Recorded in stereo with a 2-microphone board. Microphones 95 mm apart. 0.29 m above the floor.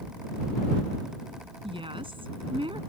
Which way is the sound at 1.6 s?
70° right (ahead or behind).